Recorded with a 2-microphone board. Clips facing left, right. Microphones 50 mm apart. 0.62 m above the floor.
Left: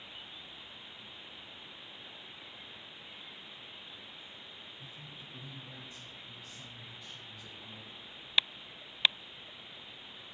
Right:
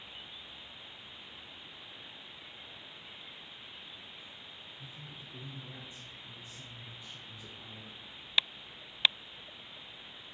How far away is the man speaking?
About 1.3 m.